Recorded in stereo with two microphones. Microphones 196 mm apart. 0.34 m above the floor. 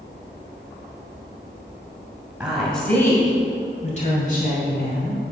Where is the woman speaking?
5° right (ahead or behind), 2 m; by 5.2 s 60° left (ahead or behind), 3 m.